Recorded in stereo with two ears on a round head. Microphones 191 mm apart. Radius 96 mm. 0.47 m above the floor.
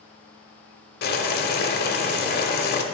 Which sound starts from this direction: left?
Boiling, at 1.0 s.